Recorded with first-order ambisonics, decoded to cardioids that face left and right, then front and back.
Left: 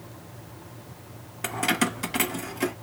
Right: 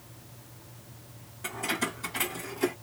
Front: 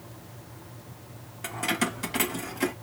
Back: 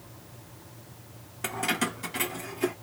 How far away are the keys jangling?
About 0.7 m.